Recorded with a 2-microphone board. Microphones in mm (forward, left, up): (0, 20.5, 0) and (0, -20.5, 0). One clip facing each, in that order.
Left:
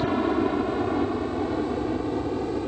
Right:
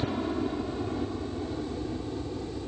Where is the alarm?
I don't hear an alarm.